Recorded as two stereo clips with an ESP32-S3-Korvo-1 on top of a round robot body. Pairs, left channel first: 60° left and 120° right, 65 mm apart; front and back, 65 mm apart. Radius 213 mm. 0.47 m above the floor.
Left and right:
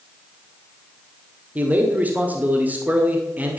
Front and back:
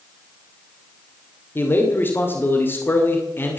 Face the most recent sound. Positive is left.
turn(degrees=-55)